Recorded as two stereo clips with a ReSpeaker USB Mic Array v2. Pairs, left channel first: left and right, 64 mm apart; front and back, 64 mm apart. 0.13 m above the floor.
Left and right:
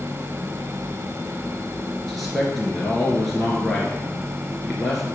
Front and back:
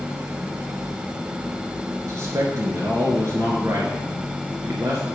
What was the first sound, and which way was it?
A man speaking, 175° left.